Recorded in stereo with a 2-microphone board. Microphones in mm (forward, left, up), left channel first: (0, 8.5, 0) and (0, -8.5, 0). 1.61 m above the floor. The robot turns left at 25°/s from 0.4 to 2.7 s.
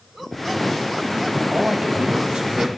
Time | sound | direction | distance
1.5 | a man speaking | 60° right (ahead or behind) | 2 m